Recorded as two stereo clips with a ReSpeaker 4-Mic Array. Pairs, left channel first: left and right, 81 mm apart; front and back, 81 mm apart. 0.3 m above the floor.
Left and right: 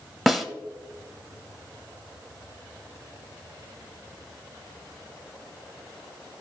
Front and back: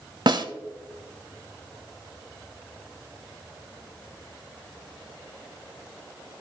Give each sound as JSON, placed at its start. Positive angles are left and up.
{"t": 0.3, "sound": "a snare drum", "azimuth_deg": 175, "distance_m": 0.7}